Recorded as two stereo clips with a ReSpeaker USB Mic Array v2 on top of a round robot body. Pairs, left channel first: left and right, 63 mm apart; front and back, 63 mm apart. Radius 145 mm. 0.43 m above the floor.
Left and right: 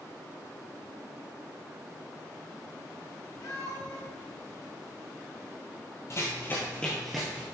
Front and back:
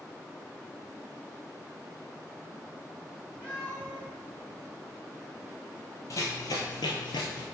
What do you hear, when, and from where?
3.4 s a cat meowing: 65° left, 2 m
6.1 s running footsteps: 40° left, 1.1 m; by 7.4 s 15° right, 0.9 m